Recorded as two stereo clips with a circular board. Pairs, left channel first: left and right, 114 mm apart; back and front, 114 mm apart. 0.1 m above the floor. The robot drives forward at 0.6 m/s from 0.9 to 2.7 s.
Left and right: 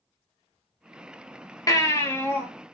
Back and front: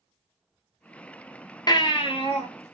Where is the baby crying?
140° left, 0.6 m; by 2.5 s 160° left, 1.0 m.